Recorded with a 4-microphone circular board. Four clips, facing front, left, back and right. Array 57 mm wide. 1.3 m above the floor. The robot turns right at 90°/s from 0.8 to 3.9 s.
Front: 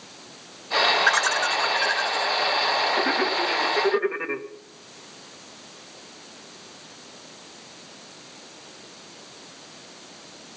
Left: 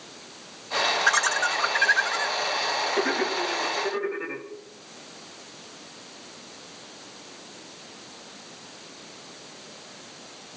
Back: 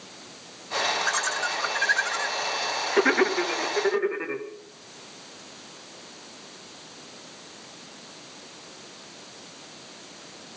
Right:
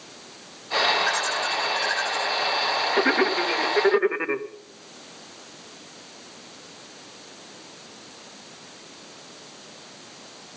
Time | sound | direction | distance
1.1 | laughter | 20° left | 1.7 m